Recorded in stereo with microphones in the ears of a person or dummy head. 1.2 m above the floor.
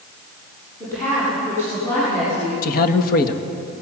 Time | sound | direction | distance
0.8 | a woman speaking | 15° left (ahead or behind) | 9.5 m
2.6 | a man speaking | 60° left (ahead or behind) | 1.5 m